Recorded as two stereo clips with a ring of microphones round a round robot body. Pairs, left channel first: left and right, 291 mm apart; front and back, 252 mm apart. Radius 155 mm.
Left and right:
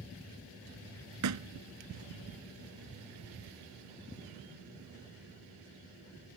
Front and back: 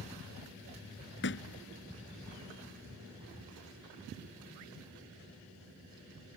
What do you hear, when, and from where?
1.2 s a thud: 55° right